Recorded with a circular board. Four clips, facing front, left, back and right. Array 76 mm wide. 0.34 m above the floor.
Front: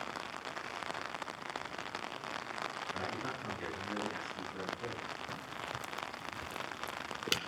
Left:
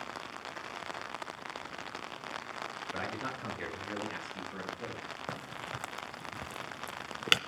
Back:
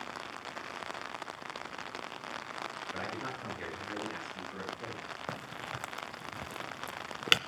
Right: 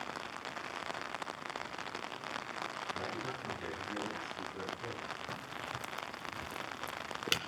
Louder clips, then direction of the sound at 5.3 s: Left 2 dB, back 2 dB; 140° left.